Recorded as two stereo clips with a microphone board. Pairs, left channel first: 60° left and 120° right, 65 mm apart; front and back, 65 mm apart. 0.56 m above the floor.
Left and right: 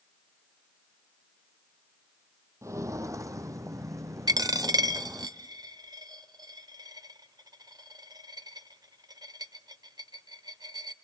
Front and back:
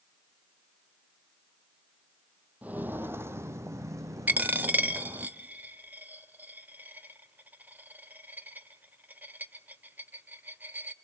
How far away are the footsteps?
About 0.8 m.